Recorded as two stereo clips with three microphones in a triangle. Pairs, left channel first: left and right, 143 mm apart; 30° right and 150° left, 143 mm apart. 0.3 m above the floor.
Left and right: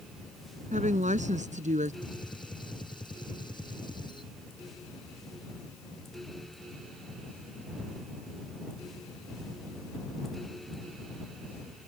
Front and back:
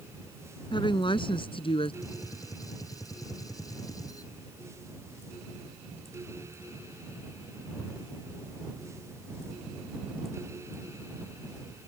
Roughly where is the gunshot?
Ahead left.